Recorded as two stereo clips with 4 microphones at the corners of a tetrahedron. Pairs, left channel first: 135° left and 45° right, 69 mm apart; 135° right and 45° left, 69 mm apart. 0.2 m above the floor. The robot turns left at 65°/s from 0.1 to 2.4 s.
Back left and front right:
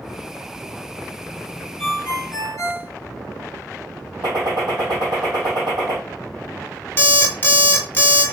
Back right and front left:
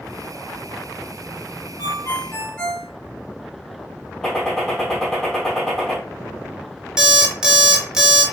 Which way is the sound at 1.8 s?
150° right.